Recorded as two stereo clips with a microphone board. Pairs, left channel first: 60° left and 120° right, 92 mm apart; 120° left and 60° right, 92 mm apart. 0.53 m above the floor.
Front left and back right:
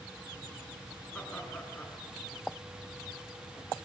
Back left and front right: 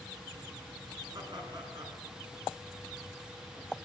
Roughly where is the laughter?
Ahead.